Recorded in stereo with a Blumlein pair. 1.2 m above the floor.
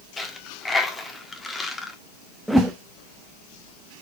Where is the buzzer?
I don't hear a buzzer.